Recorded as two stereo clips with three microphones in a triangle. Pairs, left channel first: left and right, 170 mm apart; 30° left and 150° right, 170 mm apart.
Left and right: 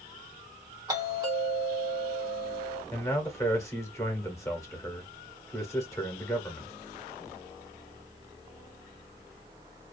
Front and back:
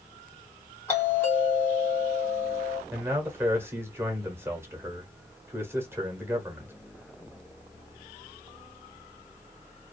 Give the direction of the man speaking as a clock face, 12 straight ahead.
7 o'clock.